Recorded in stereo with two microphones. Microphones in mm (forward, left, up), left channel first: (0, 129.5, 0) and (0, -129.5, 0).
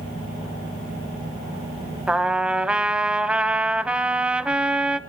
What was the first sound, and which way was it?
A trumpet, 5° right (ahead or behind).